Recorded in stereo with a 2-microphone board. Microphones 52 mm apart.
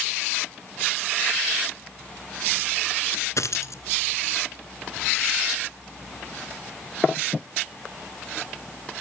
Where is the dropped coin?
80° left, 1.2 m.